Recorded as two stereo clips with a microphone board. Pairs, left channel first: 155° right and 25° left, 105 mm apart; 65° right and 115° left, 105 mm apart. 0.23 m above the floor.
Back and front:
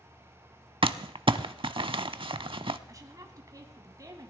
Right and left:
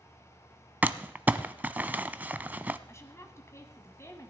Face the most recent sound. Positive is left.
turn(degrees=-15)